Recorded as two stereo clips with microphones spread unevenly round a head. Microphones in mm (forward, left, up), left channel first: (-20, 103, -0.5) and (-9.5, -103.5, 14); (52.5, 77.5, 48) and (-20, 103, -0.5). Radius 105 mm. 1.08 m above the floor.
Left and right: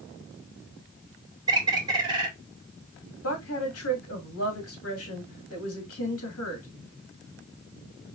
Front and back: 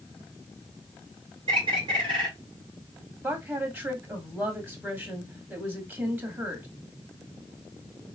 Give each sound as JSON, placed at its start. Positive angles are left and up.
{"t": 1.5, "sound": "a bird", "azimuth_deg": -155, "distance_m": 1.7}
{"t": 3.2, "sound": "a woman speaking", "azimuth_deg": 110, "distance_m": 2.0}